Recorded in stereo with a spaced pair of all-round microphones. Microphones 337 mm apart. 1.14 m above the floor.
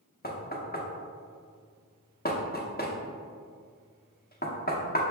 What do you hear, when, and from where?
0.2 s knocking: 30° left (ahead or behind), 0.6 m